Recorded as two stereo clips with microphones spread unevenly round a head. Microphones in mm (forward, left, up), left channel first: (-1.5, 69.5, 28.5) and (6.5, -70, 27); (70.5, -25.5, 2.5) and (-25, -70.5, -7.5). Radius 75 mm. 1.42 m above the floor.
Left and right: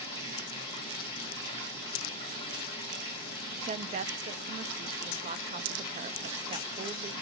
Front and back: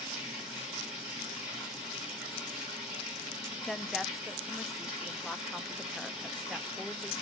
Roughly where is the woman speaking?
Right.